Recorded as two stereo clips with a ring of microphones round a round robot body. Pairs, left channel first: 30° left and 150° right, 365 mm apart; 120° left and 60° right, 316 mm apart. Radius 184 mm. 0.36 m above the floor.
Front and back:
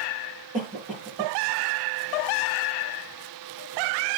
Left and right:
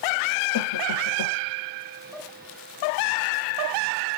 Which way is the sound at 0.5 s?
140° left.